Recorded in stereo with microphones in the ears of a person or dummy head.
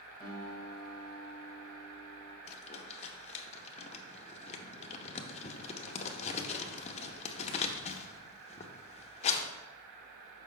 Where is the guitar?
5° right (ahead or behind), 3 m.